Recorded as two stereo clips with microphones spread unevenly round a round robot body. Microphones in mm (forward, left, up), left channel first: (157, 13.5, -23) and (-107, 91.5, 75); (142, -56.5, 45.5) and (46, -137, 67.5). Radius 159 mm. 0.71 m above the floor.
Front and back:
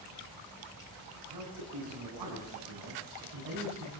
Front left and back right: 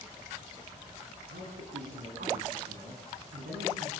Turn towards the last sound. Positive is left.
turn(degrees=-170)